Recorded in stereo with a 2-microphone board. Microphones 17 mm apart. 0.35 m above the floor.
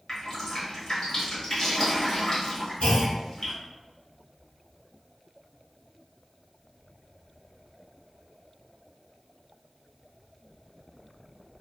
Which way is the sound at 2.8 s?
75° left (ahead or behind).